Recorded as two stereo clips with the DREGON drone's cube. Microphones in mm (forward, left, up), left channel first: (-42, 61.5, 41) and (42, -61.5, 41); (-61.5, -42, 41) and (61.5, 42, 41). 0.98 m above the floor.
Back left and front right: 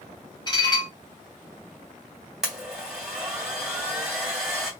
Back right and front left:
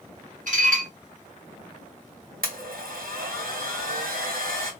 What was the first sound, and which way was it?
Dishes clattering, 65° left.